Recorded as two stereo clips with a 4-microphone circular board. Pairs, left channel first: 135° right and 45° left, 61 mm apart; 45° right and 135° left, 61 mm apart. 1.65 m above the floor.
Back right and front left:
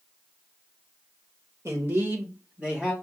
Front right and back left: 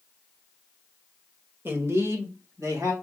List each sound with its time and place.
1.6 s a man speaking: 85° left, 1.5 m; by 2.9 s 125° left, 2.5 m